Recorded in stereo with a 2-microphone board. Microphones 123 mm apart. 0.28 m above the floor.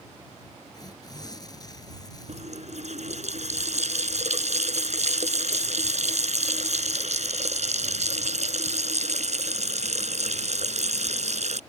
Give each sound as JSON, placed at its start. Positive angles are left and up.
{"t": 0.7, "sound": "tearing paper", "side_deg": 30}
{"t": 2.3, "sound": "a running tap", "side_deg": -70}